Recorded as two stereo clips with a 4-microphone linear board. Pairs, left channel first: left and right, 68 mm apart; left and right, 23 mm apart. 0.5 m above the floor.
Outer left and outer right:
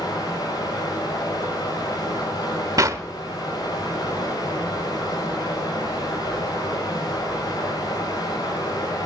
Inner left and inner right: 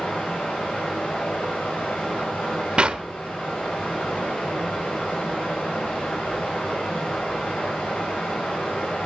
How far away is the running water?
About 8.5 m.